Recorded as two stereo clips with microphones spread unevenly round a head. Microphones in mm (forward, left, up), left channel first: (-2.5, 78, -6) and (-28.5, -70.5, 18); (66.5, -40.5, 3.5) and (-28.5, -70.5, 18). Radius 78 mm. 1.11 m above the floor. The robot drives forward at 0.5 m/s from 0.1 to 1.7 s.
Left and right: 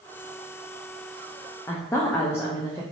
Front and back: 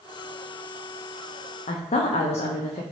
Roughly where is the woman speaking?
Ahead.